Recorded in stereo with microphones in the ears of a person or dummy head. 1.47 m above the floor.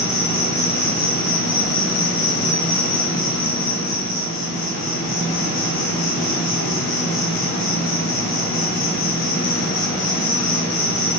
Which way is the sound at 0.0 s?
60° left (ahead or behind).